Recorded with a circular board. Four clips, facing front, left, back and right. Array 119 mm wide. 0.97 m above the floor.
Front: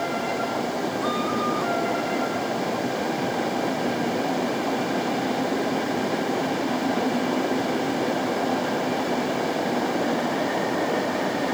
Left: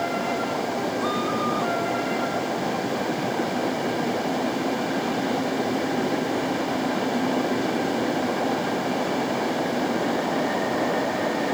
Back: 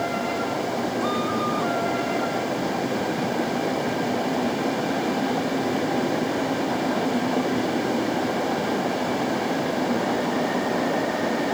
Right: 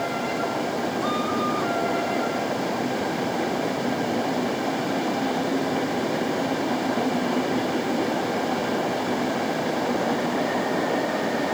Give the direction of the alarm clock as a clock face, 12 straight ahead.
I don't hear an alarm clock.